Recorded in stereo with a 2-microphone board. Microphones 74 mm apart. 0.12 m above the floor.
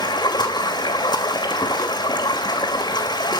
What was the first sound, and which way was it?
Running water, 80° left.